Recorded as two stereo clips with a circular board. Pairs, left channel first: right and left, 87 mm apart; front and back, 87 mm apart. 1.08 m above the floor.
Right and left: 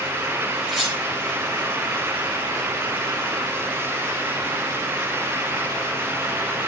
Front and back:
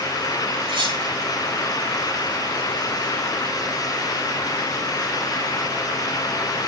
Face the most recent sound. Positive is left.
turn(degrees=180)